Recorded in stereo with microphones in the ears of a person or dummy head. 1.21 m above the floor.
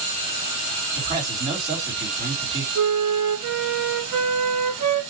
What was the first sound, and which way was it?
A man speaking, 30° right (ahead or behind).